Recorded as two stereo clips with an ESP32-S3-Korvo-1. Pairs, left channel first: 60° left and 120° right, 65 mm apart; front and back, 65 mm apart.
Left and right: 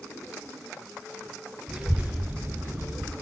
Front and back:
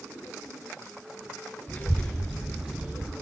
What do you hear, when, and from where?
1.7 s a child speaking: 45° right, 0.9 m; by 3.1 s 130° right, 0.9 m